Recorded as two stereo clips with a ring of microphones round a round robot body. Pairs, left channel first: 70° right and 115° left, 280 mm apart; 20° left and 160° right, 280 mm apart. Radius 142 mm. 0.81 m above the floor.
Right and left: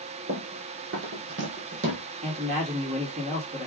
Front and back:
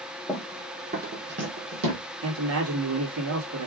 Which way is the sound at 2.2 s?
175° left.